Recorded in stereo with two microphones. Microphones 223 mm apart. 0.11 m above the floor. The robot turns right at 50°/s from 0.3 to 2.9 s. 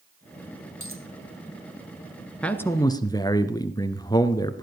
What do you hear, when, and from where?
0.8 s a dropped coin: 70° right (ahead or behind), 1.9 m; by 1.1 s 60° right (ahead or behind), 1.9 m
2.4 s a man speaking: 5° left (ahead or behind), 1.3 m; by 4.6 s 15° left (ahead or behind), 1.3 m